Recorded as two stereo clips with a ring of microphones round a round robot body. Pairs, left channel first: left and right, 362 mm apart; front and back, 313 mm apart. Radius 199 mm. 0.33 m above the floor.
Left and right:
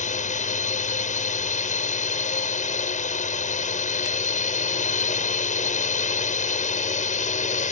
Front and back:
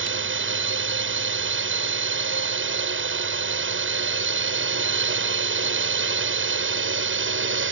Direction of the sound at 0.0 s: 150° left.